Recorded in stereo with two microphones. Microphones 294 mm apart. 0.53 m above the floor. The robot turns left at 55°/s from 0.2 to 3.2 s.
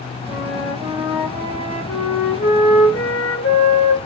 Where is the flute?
125° right, 1.7 m; by 4.0 s 75° left, 1.7 m.